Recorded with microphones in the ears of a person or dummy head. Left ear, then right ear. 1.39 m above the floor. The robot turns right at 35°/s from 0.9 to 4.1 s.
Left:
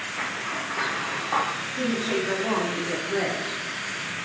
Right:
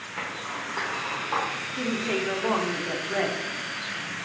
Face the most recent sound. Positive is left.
turn(degrees=-85)